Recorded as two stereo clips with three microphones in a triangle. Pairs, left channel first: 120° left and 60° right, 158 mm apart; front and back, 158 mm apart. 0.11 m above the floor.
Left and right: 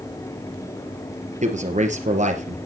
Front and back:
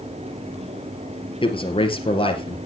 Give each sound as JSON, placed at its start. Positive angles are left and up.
{"t": 1.4, "sound": "a man speaking", "azimuth_deg": -45, "distance_m": 2.5}